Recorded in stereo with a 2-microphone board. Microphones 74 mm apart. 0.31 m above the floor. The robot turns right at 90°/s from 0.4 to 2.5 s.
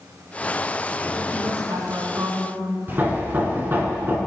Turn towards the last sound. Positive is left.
turn(degrees=-30)  # may be behind; listen again after turning